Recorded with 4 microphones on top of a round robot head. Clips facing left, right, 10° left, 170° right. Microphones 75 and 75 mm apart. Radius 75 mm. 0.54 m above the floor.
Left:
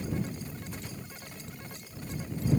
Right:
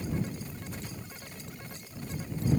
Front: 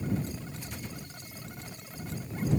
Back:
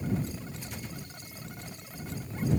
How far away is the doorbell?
I don't hear a doorbell.